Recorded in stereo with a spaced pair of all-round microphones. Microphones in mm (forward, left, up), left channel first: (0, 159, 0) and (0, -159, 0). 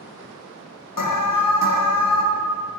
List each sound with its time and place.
1.0 s an alarm: 80° left, 0.9 m